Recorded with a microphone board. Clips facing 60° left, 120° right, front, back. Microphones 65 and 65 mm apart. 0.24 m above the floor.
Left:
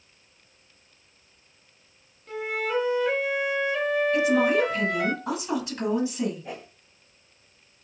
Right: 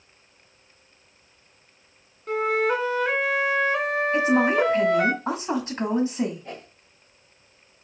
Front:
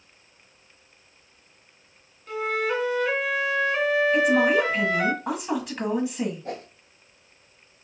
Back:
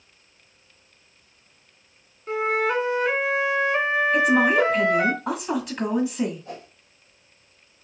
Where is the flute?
125° right, 0.8 m.